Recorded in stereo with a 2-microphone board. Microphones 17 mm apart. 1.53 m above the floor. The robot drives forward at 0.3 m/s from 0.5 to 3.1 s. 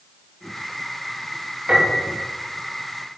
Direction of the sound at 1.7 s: 50° right (ahead or behind).